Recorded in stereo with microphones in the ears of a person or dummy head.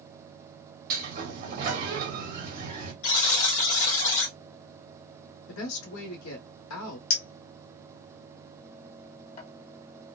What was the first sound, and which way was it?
A sliding door, 50° right (ahead or behind).